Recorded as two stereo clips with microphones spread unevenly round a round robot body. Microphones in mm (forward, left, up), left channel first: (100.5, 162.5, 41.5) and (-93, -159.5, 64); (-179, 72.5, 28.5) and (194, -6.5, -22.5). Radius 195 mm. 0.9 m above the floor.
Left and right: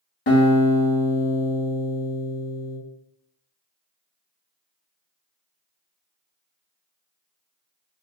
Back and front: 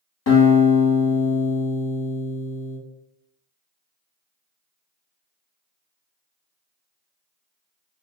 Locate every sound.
0.3 s a guitar: 115° left, 1.6 m